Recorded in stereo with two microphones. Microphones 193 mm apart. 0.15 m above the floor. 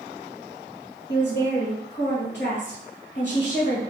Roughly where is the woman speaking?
Left.